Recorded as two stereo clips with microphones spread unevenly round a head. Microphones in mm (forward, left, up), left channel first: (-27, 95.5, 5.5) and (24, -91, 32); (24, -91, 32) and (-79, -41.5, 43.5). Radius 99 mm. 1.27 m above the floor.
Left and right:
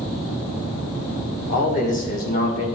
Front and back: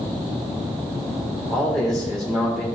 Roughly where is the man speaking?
Ahead left.